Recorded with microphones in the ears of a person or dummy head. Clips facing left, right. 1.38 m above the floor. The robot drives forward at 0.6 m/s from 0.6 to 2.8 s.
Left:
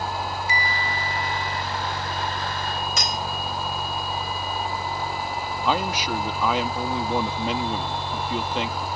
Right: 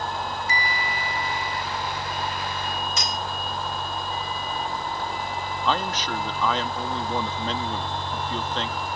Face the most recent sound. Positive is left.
turn(degrees=15)  # may be behind; listen again after turning